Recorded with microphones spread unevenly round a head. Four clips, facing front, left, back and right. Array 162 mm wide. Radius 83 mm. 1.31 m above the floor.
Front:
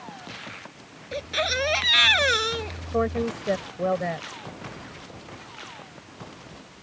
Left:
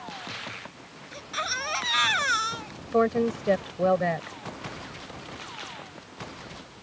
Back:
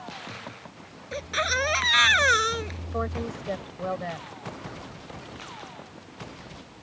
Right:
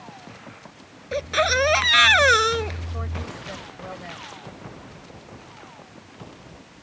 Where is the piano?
No piano in this recording.